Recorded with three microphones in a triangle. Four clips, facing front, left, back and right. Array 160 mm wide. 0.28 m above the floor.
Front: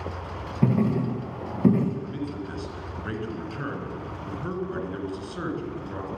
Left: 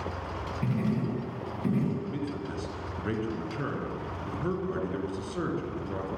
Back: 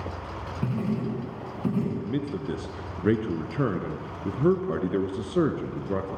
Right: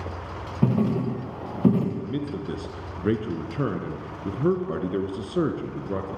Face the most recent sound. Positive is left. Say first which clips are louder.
# right 4 dB, back 2 dB
turn(degrees=-145)